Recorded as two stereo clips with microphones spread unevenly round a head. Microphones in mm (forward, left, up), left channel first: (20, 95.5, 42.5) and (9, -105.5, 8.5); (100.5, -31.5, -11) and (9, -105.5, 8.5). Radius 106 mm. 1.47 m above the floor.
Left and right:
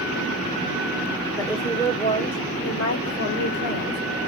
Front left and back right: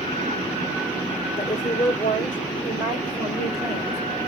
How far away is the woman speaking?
About 1.5 m.